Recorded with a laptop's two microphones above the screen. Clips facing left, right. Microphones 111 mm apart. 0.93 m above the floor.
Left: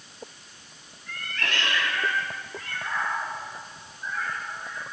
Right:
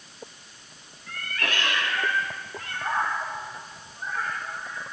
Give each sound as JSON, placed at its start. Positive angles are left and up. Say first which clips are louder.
{"t": 1.1, "sound": "a cat meowing", "louder": "right 1 dB", "side_deg": -5, "distance_m": 2.5}